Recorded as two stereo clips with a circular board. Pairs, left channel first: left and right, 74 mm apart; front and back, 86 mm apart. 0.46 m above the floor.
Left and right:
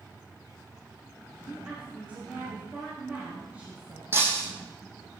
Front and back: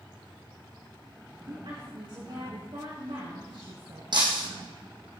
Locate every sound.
1.4 s a woman speaking: 160° right, 4.5 m
4.1 s breaking glass: 150° right, 2.5 m